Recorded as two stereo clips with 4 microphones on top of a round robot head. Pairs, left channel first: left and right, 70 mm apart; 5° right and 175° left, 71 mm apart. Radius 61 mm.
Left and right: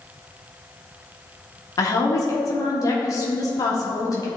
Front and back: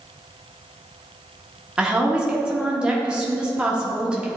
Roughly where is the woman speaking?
Left.